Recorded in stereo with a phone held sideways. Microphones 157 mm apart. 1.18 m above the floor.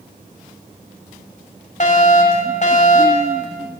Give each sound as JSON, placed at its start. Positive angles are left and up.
{"t": 1.8, "sound": "a fire alarm", "side_deg": 50, "distance_m": 6.0}